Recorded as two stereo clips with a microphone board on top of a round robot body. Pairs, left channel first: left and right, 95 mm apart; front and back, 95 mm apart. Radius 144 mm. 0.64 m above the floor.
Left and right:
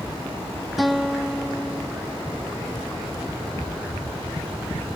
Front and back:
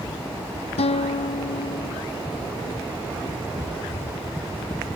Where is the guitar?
Straight ahead.